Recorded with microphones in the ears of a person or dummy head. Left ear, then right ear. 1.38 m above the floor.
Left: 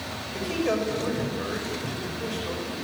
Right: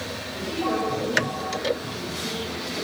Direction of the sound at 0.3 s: 55° left (ahead or behind).